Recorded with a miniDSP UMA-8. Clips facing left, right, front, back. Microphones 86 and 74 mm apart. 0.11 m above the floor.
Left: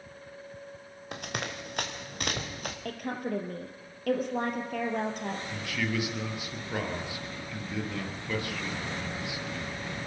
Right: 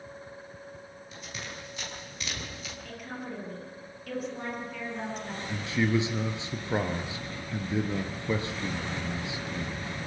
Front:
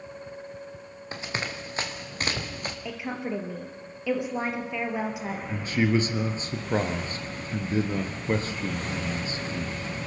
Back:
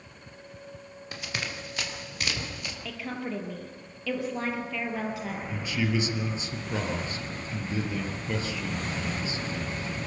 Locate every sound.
1.1 s running footsteps: 60° left, 3 m; by 2.8 s 50° left, 3.5 m
2.9 s a woman speaking: 70° left, 3 m
5.5 s a man speaking: 35° right, 1.9 m